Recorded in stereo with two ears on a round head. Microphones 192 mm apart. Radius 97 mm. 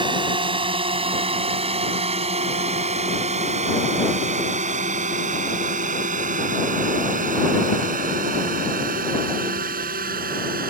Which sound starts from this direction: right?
A drone, at 0.0 s.